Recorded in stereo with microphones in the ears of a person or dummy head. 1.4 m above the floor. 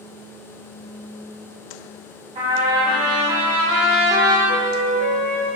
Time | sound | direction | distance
2.4 | a trumpet | 30° right (ahead or behind) | 2.5 m
4.5 | a flute | 10° left (ahead or behind) | 3 m